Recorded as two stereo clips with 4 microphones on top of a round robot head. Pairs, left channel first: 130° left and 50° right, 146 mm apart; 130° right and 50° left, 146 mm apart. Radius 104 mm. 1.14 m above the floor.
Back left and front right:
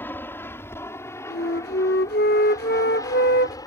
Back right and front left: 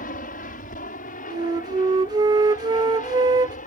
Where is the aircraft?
155° right; by 3.7 s 165° right.